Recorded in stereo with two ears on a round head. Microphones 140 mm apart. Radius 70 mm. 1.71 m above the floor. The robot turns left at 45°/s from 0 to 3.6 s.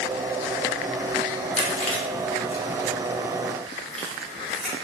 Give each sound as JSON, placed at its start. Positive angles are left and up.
{"t": 1.6, "sound": "chewing", "side_deg": 40, "distance_m": 0.6}